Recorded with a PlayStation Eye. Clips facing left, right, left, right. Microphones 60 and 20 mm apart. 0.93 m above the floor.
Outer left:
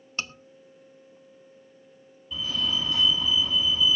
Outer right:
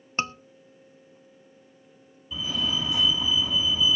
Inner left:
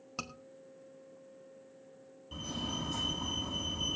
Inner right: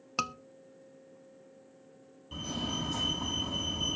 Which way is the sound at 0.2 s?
30° right (ahead or behind).